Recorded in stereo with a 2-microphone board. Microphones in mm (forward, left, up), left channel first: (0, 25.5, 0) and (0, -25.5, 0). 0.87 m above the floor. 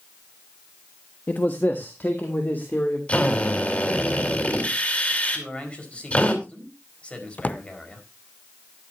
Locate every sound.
1.3 s a man speaking: 45° left (ahead or behind), 1.2 m; by 3.0 s 40° left (ahead or behind), 3 m
3.1 s a drill: 30° left (ahead or behind), 4 m
5.3 s a man speaking: 25° left (ahead or behind), 5 m
7.4 s a drawer: 35° left (ahead or behind), 0.6 m